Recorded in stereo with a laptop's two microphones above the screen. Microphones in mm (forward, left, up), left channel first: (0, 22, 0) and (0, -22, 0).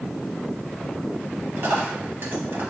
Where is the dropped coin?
60° right (ahead or behind), 1.5 m.